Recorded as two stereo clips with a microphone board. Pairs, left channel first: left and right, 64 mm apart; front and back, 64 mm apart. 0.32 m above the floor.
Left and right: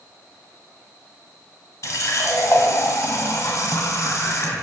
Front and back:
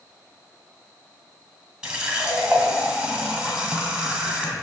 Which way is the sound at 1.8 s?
110° left.